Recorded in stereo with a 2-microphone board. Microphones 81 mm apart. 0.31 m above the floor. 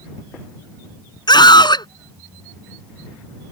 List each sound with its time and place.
1.3 s a scream: 70° left (ahead or behind)